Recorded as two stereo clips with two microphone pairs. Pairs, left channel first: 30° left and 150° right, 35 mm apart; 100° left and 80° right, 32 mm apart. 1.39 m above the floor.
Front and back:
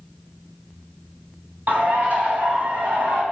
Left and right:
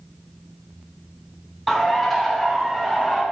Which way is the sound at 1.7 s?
170° right.